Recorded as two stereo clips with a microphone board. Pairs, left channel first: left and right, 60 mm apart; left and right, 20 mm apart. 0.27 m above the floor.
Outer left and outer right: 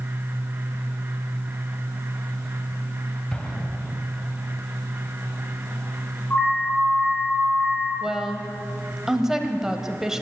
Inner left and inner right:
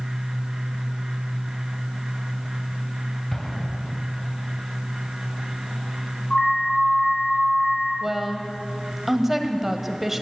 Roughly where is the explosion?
Centre.